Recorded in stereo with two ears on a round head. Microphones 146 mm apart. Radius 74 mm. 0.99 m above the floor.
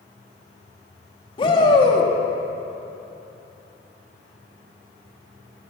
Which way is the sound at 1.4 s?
30° left (ahead or behind).